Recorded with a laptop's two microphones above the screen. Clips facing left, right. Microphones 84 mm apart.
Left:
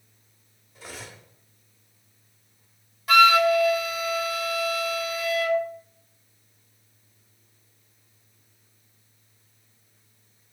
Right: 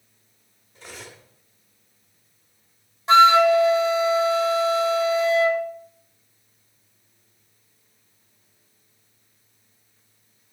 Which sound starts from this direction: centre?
Cutlery clinking, at 0.8 s.